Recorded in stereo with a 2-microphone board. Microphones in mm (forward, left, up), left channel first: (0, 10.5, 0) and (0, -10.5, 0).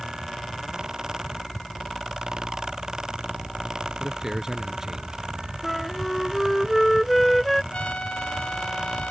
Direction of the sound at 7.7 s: 85° left.